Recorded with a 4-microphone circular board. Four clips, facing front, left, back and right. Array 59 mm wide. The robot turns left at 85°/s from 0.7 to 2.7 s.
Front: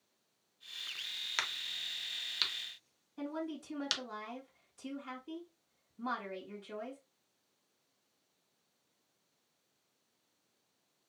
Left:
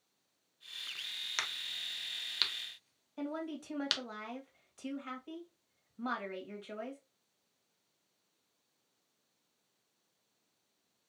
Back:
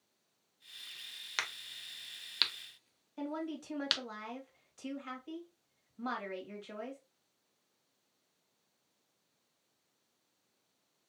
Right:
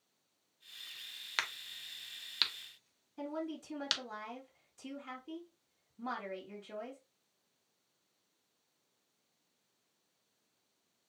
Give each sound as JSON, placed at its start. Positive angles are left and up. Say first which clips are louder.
{"t": 1.4, "sound": "a crack", "louder": "right 2 dB, even", "azimuth_deg": -85, "distance_m": 0.7}
{"t": 3.2, "sound": "a woman speaking", "louder": "left 1 dB, back 1 dB", "azimuth_deg": 120, "distance_m": 1.6}